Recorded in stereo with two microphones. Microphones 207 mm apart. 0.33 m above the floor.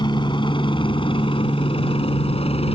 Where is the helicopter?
20° left (ahead or behind); by 2.7 s 30° left (ahead or behind).